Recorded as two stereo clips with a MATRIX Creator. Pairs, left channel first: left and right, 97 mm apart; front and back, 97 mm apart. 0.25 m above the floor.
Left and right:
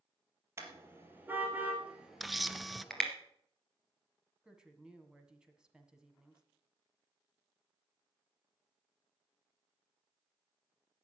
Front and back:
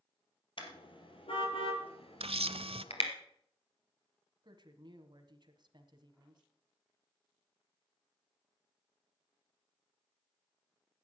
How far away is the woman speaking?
About 1.7 m.